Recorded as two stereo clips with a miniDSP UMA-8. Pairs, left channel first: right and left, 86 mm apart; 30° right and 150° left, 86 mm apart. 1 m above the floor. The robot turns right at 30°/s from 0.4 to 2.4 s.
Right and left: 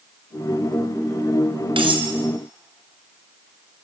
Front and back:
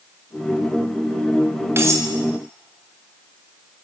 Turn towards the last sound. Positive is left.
turn(degrees=110)